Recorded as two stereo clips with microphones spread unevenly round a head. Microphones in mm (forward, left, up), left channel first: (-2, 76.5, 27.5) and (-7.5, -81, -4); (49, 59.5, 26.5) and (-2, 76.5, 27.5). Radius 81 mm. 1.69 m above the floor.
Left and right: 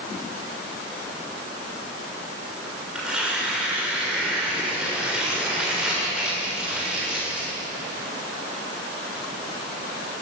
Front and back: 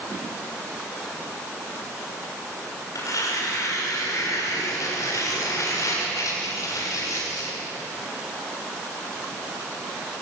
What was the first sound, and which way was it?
Tearing paper, 5° right.